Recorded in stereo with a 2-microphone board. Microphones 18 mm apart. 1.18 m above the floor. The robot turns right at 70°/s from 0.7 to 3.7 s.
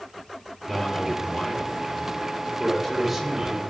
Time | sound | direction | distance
0.7 | a man speaking | 20° left | 4 m